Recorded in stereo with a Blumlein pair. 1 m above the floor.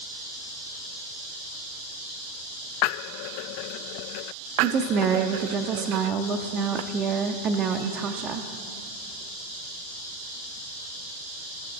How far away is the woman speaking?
About 0.6 m.